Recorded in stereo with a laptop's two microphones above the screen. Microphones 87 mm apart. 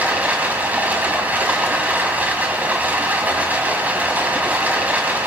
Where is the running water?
20° right (ahead or behind), 2.5 m.